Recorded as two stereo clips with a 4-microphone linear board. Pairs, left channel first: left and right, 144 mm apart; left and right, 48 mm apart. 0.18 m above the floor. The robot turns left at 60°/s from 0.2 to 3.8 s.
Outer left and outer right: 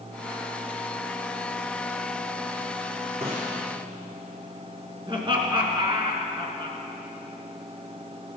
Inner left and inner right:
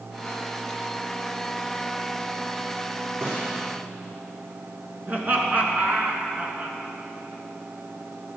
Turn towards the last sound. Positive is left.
turn(degrees=-35)  # may be behind; listen again after turning